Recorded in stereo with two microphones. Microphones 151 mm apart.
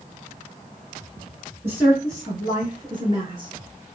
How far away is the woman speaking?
About 1.6 m.